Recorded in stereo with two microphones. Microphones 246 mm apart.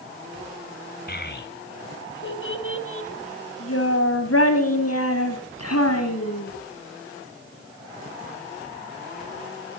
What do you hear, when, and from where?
1.1 s a child speaking: 40° left (ahead or behind), 2.5 m; by 6.5 s 85° left, 4 m